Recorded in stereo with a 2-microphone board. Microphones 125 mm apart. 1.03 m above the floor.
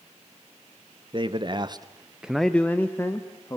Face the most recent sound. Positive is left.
turn(degrees=25)  # may be behind; listen again after turning